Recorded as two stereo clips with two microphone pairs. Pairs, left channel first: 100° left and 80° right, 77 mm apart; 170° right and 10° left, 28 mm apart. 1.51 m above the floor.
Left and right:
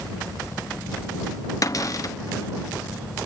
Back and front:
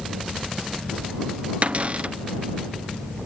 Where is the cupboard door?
50° left.